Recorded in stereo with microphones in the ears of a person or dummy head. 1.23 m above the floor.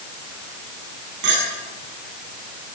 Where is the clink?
70° right (ahead or behind), 7 m.